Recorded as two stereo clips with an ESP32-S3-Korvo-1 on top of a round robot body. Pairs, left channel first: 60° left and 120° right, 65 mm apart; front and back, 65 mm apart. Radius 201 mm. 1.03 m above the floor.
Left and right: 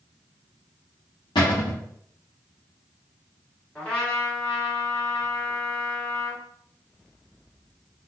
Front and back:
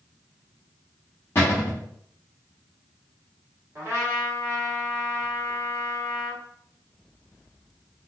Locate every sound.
1.4 s a cupboard door: 55° left, 0.7 m
3.8 s a trumpet: 130° left, 1.6 m